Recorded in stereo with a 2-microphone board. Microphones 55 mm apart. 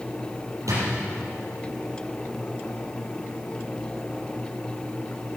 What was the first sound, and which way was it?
A drawer, 75° right (ahead or behind).